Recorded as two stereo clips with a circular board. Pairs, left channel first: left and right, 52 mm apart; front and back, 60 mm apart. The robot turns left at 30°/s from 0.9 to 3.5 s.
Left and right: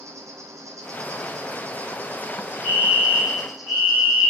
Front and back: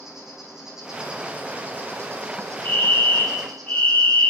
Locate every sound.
0.0 s an insect: 95° right, 1.8 m; by 4.3 s 175° right, 1.8 m
2.6 s a fire alarm: 25° right, 4.5 m; by 4.3 s 50° right, 4.5 m